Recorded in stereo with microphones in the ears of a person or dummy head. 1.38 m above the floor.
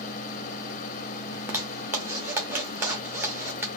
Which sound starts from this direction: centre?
A zipper, at 1.3 s.